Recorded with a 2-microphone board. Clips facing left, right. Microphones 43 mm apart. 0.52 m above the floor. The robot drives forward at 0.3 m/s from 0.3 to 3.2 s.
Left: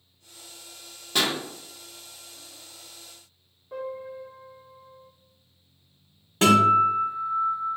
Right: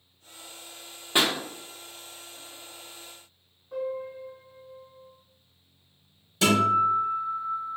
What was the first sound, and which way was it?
A pop, 25° right (ahead or behind).